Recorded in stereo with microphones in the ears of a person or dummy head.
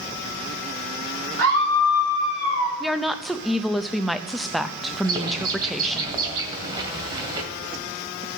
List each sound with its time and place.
1.4 s a scream: 70° right (ahead or behind), 3.5 m; by 2.7 s 80° right, 3 m
2.8 s a woman speaking: centre (ahead or behind), 0.6 m
5.0 s a bird: 30° right (ahead or behind), 2 m